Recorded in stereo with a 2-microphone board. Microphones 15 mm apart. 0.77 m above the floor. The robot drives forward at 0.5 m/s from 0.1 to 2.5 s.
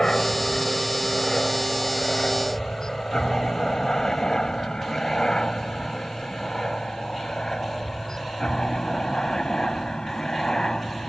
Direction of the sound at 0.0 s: 55° left (ahead or behind).